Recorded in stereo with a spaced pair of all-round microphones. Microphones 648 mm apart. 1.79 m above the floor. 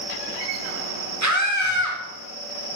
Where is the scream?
25° right (ahead or behind), 1.9 m.